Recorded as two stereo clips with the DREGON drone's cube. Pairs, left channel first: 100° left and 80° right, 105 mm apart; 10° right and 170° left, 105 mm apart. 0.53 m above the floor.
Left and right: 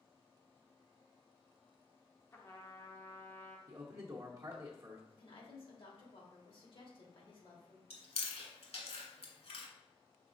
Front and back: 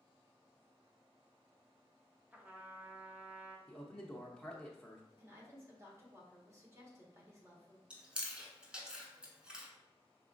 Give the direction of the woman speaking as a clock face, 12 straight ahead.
8 o'clock.